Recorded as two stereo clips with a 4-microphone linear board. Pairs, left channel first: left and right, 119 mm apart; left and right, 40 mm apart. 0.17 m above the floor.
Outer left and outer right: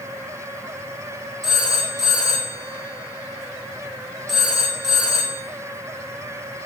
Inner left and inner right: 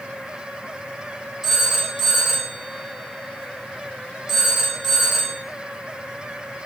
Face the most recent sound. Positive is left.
turn(degrees=0)  # may be behind; listen again after turning